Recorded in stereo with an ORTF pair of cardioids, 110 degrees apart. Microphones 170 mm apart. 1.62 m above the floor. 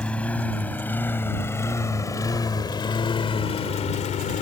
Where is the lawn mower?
5° left; by 4.4 s 70° left.